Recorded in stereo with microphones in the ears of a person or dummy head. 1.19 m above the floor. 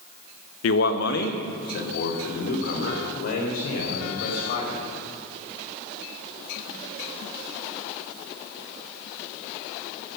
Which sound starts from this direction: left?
A man speaking, at 0.6 s.